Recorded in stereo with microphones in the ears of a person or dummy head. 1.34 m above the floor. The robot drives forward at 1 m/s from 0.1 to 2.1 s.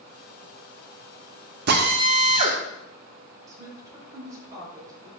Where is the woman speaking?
20° right (ahead or behind), 4.5 m.